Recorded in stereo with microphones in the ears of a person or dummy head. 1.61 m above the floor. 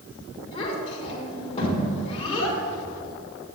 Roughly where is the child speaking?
Left.